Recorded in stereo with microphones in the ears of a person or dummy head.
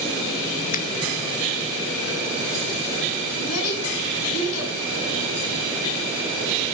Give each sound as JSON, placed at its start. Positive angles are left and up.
{"t": 0.7, "sound": "a finger snap", "side_deg": 45, "distance_m": 0.8}
{"t": 3.4, "sound": "a child speaking", "side_deg": 85, "distance_m": 5.0}